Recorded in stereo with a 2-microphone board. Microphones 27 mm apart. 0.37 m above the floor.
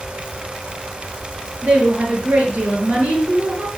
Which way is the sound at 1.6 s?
55° right (ahead or behind).